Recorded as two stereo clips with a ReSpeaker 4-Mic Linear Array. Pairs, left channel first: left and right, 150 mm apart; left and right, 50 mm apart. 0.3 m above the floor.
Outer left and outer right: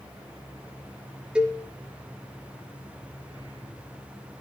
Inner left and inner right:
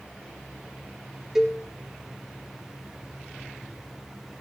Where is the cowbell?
5° right (ahead or behind), 2.5 m.